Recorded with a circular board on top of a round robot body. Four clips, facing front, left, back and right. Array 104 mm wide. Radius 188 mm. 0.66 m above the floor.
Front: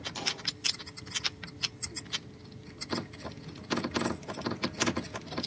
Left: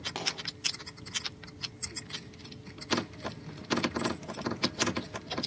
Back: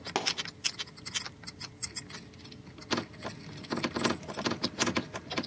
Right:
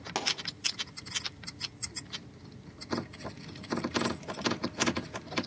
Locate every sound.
0.1 s a pop: 160° right, 2 m